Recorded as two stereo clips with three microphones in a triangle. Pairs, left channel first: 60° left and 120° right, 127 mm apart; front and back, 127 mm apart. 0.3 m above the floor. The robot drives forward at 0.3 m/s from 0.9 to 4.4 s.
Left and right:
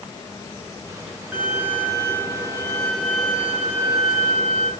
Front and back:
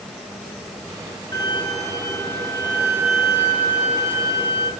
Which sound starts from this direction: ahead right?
A violin, at 1.3 s.